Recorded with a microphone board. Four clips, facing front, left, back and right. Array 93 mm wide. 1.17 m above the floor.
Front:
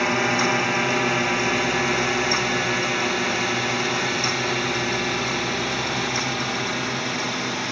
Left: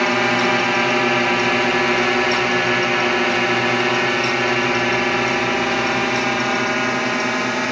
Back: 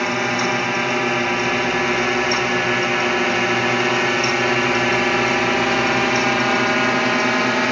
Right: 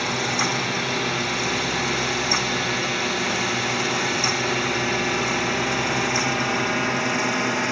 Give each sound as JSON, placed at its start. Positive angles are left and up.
{"t": 0.0, "sound": "a drone", "azimuth_deg": 95}